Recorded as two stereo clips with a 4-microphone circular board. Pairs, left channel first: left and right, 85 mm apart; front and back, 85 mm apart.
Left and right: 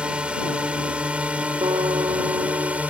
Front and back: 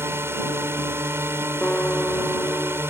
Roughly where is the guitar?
Right.